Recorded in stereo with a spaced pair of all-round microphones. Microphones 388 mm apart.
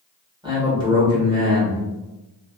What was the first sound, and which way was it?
A man speaking, 10° right (ahead or behind).